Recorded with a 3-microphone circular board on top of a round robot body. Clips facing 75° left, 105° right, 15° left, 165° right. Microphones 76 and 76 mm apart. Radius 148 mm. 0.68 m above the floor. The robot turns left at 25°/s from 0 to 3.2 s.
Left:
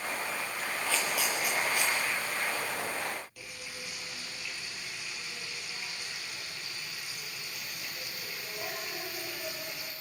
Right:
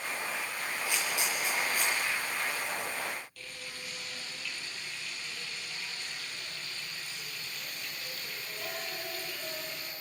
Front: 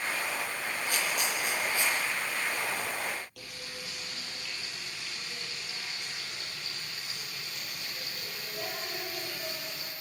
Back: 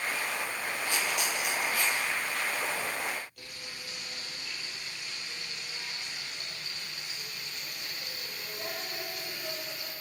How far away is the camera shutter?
About 8 m.